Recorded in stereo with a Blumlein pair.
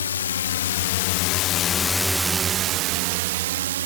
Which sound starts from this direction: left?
A drone, at 0.0 s.